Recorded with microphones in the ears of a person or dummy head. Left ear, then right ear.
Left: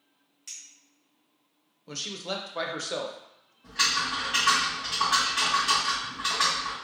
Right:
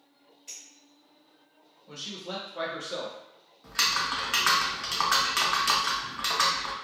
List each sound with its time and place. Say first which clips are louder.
0.5 s a clink: left 2 dB; 40° left (ahead or behind), 1.1 m
1.9 s a man speaking: left 4 dB; 75° left (ahead or behind), 0.6 m
3.6 s typing on a keyboard: left 1 dB; 45° right (ahead or behind), 0.6 m